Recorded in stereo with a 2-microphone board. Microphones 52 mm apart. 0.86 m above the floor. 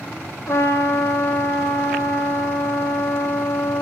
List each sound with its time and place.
0.5 s a trumpet: 55° left (ahead or behind), 1.6 m